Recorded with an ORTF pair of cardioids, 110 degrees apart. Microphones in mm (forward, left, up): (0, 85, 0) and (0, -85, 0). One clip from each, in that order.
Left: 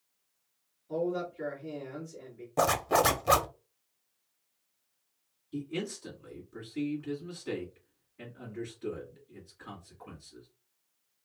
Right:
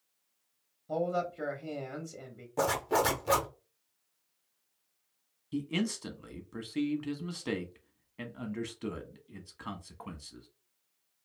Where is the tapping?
I don't hear tapping.